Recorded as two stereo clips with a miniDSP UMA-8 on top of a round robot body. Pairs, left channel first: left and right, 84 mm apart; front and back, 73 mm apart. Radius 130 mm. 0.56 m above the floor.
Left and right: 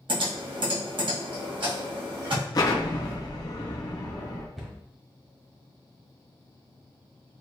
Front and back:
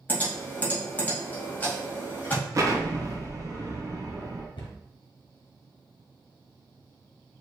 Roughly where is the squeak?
I don't hear a squeak.